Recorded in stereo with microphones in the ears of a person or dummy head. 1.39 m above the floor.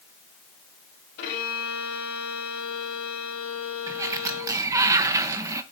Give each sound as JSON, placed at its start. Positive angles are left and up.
{"t": 1.2, "sound": "a violin", "side_deg": 55, "distance_m": 2.5}
{"t": 3.9, "sound": "a sliding door", "side_deg": -15, "distance_m": 0.7}